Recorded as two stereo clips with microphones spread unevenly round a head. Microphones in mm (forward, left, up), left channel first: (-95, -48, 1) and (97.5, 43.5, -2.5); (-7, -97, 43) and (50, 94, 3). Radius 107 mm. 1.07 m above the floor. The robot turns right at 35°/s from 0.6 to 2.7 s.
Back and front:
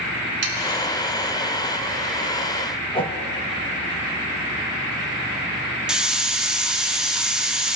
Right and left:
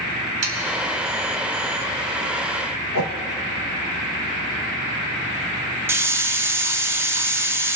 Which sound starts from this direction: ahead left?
Sawing, at 0.4 s.